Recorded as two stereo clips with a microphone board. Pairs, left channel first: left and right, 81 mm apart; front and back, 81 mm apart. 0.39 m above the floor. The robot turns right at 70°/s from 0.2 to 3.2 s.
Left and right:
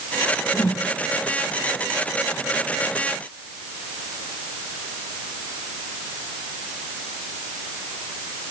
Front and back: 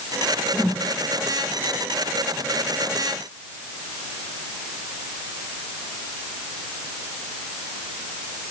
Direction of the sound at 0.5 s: 70° left.